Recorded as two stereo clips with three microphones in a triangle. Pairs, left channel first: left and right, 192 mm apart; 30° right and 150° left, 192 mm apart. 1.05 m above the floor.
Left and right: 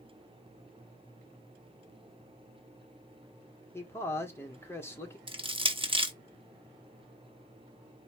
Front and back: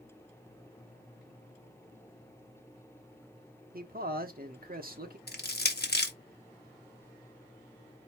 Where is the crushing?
30° right, 0.9 m.